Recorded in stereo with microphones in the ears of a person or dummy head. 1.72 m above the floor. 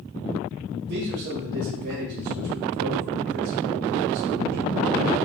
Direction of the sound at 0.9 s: 60° right (ahead or behind).